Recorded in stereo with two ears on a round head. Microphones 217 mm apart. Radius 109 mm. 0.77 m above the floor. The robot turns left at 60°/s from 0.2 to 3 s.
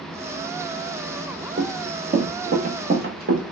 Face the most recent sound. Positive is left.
turn(degrees=-40)  # may be behind; listen again after turning